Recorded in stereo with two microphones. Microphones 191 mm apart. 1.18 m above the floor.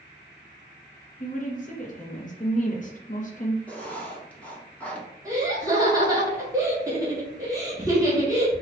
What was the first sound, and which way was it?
A woman speaking, 45° left (ahead or behind).